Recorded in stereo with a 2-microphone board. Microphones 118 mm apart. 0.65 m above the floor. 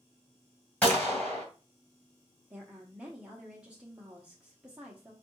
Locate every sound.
0.8 s a gunshot: 10° left (ahead or behind), 2 m
2.5 s a woman speaking: 10° right (ahead or behind), 0.8 m